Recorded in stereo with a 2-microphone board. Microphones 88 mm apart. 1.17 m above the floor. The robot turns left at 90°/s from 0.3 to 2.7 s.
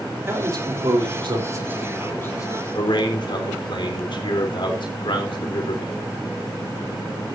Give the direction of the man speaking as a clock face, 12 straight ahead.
1 o'clock.